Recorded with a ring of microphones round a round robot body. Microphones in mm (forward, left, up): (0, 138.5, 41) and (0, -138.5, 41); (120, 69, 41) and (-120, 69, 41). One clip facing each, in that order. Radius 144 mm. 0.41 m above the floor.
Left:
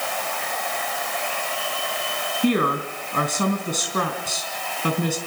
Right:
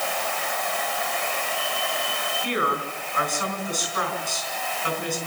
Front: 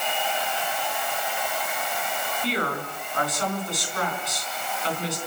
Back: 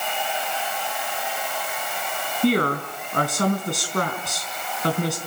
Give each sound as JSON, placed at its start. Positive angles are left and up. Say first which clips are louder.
{"t": 2.4, "sound": "a woman speaking", "louder": "left 8 dB, back 10 dB", "azimuth_deg": 140, "distance_m": 4.0}